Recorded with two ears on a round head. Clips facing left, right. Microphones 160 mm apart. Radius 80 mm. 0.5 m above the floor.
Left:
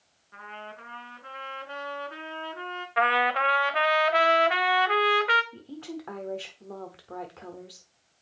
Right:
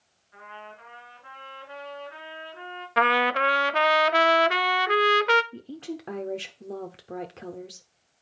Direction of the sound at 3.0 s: 50° right (ahead or behind).